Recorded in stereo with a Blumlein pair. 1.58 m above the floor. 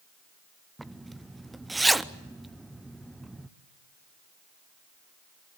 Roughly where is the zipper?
Ahead.